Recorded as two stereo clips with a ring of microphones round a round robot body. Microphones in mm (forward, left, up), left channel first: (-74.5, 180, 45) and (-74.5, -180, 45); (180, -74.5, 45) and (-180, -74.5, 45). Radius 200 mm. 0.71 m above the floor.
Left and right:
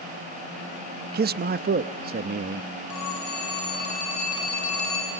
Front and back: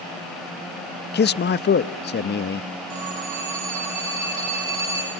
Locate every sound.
1.1 s a man speaking: 45° right, 0.5 m
2.9 s a phone ringing: 130° left, 6.5 m